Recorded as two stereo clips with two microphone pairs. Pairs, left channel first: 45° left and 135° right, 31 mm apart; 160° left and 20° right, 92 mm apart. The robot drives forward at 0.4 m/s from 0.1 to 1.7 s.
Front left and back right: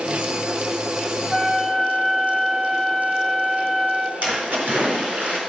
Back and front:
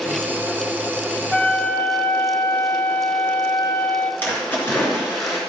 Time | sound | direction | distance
1.3 | a flute | 135° left | 0.9 m
4.2 | a splash | 135° right | 4 m